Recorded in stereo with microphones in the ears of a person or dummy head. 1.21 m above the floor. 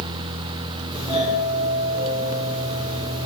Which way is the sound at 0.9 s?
30° right (ahead or behind).